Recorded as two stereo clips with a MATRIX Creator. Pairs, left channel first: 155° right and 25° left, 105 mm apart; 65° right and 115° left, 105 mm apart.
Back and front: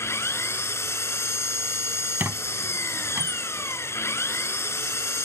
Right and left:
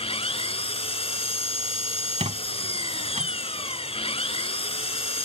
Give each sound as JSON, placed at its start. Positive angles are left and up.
{"t": 0.0, "sound": "an engine running", "azimuth_deg": -90}
{"t": 2.2, "sound": "a squeak", "azimuth_deg": 95}